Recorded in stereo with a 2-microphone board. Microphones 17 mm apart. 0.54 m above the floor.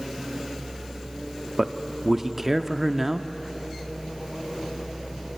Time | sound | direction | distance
1.6 | a man speaking | 10° right (ahead or behind) | 0.6 m